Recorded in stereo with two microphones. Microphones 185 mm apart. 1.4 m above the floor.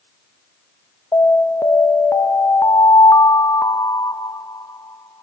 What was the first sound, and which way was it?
An alarm, 15° left (ahead or behind).